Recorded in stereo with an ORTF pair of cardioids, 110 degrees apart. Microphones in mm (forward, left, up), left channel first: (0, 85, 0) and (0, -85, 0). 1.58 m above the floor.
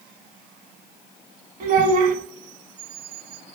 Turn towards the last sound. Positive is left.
turn(degrees=-60)